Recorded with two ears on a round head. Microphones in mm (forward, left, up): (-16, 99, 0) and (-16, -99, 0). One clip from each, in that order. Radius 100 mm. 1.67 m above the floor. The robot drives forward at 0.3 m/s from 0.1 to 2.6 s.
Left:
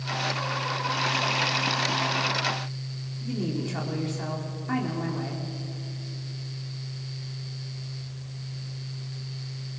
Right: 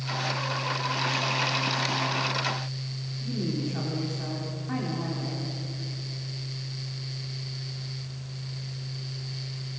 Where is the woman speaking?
45° left (ahead or behind), 4 m.